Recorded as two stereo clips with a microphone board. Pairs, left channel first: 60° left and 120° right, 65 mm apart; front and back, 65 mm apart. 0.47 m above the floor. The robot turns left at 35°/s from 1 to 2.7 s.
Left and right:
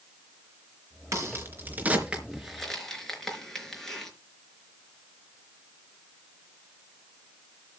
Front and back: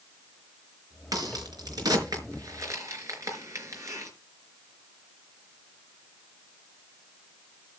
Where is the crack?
160° right, 4.5 m; by 4.1 s 145° left, 4.5 m.